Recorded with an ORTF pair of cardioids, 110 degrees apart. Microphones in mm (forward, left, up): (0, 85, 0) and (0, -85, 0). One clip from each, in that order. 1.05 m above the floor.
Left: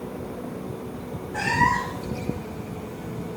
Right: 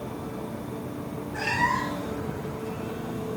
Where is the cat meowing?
35° left, 5 m.